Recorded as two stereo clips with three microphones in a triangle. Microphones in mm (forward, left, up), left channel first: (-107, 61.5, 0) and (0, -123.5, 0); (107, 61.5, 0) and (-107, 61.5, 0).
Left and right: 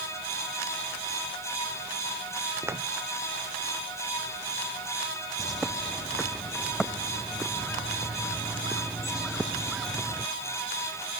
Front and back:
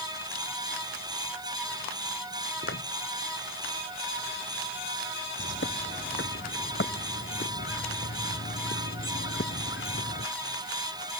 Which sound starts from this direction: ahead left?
A bird, at 5.4 s.